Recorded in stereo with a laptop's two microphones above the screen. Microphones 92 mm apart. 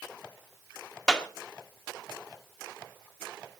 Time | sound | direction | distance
1.1 | a clap | 10° left (ahead or behind) | 1.8 m